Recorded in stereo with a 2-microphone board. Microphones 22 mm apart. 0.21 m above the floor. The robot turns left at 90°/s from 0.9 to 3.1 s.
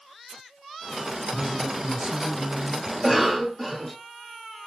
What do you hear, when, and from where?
1.3 s a man speaking: 35° right, 3.5 m; by 2.8 s 170° right, 3.5 m
2.9 s a cough: 10° right (ahead or behind), 1.1 m; by 4.0 s centre (ahead or behind), 1.1 m